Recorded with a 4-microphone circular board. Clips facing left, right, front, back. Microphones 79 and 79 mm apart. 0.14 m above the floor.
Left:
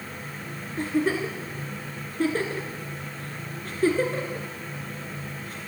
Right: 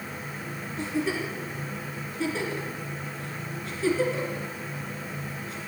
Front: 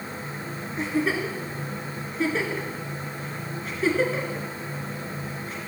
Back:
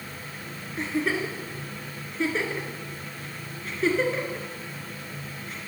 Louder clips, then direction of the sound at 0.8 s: Left 4 dB, front 2 dB; 90° left.